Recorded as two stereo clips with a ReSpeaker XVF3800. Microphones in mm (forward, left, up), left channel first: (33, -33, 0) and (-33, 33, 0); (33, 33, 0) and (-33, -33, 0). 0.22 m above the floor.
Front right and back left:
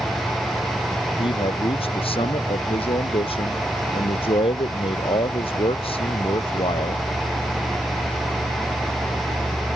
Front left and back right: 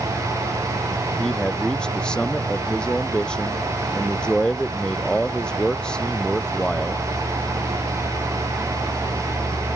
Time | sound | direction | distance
1.2 | a man speaking | 35° right | ?